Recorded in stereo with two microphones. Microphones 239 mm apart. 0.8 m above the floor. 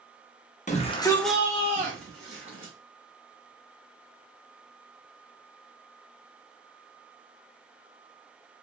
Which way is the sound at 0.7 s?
30° left (ahead or behind).